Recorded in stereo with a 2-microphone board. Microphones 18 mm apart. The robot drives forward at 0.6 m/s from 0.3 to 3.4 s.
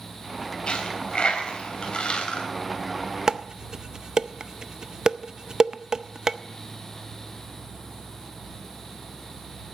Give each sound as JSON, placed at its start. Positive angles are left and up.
{"t": 0.7, "sound": "a dropped coin", "side_deg": 60, "distance_m": 3.0}
{"t": 3.3, "sound": "dishes clattering", "side_deg": -35, "distance_m": 0.5}